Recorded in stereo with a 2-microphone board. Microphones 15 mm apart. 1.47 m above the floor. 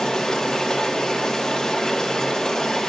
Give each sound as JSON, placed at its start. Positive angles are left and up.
{"t": 0.0, "sound": "running water", "side_deg": 55, "distance_m": 2.5}